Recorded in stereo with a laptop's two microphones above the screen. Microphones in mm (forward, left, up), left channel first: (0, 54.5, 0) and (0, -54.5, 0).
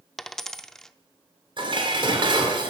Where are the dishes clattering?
50° right (ahead or behind), 2.5 m.